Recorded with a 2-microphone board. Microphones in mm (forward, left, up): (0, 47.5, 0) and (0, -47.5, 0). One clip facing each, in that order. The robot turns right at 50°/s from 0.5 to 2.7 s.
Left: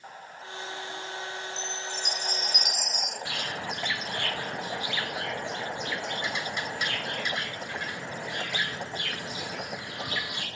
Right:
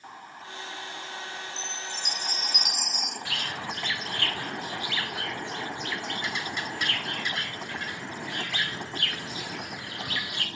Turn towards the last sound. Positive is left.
turn(degrees=15)  # may be behind; listen again after turning